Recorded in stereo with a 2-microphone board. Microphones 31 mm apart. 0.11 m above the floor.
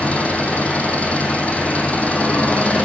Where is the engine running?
50° left (ahead or behind), 2.5 m.